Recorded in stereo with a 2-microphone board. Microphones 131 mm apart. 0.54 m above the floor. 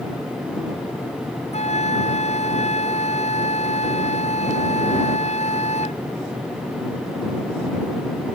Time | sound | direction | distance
1.5 | a flute | 55° left (ahead or behind) | ?